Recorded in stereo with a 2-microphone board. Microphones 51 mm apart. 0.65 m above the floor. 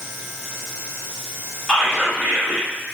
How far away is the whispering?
About 0.6 m.